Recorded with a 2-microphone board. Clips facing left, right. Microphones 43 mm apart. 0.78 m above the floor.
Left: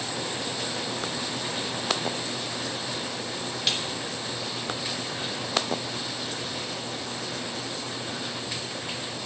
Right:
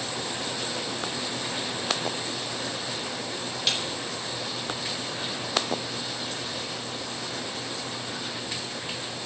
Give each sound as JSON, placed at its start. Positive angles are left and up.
{"t": 3.7, "sound": "a snare drum", "side_deg": 0, "distance_m": 3.0}